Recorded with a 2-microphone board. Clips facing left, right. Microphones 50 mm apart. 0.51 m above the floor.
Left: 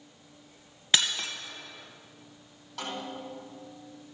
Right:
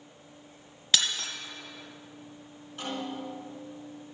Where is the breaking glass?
30° left (ahead or behind), 1.8 m.